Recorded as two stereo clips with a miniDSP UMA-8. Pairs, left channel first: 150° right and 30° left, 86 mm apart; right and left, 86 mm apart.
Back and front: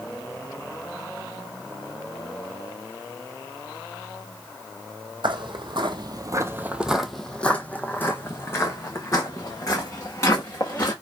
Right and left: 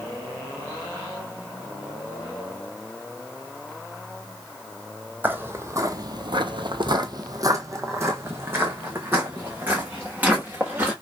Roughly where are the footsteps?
Ahead left.